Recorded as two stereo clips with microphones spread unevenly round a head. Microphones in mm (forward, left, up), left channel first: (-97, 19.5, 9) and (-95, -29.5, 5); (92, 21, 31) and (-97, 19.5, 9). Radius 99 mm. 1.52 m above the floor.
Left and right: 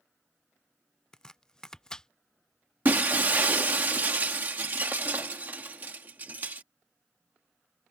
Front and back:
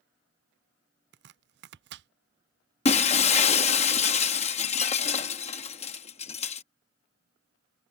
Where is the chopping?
160° left.